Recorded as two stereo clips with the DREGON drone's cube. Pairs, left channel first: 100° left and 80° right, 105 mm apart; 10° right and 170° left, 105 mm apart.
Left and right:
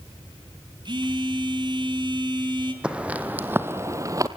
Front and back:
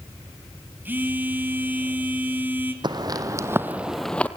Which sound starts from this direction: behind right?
A phone buzzing, at 0.8 s.